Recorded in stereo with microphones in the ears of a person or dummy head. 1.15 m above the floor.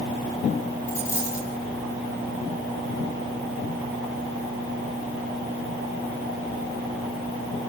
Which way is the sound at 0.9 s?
20° left (ahead or behind).